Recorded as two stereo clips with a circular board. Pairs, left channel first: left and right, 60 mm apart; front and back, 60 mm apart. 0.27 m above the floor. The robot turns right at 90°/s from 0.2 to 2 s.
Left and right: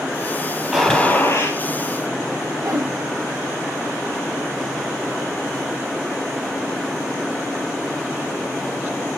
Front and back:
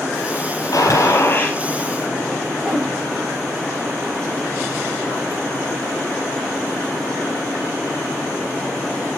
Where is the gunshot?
5° right, 5 m; by 1.6 s 75° left, 5 m.